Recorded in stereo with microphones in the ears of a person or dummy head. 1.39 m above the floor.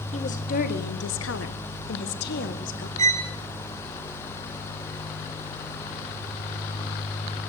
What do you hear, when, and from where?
0.1 s a woman speaking: 40° left (ahead or behind), 1.6 m; by 2.9 s 45° left (ahead or behind), 1.8 m
3.0 s a violin: 35° right (ahead or behind), 0.9 m